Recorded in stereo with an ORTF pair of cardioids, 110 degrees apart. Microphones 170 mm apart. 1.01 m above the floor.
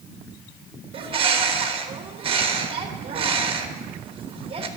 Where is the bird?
35° right, 1.2 m.